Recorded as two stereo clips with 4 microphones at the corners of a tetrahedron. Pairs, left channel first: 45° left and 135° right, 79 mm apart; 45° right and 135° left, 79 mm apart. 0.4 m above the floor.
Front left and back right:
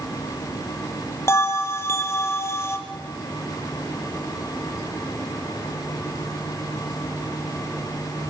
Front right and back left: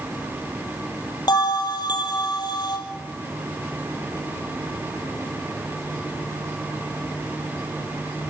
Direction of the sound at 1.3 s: 15° right.